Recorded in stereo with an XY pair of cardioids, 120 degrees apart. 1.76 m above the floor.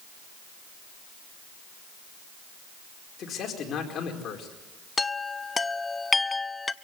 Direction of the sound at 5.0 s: 20° left.